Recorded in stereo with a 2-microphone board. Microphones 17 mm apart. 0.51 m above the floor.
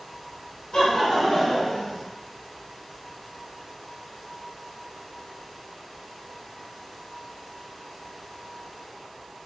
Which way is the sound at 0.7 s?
55° left (ahead or behind).